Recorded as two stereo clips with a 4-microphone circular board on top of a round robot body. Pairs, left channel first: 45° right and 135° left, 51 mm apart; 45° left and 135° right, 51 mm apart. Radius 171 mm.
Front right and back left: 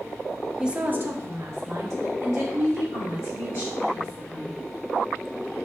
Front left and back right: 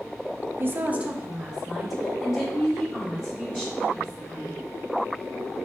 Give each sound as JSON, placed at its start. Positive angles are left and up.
{"t": 0.6, "sound": "a woman speaking", "azimuth_deg": -155, "distance_m": 0.7}